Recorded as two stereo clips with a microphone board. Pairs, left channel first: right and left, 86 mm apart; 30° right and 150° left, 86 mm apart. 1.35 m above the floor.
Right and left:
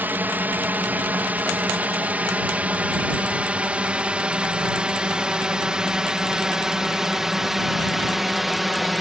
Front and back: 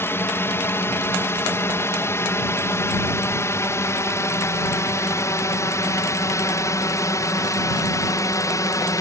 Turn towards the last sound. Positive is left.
turn(degrees=0)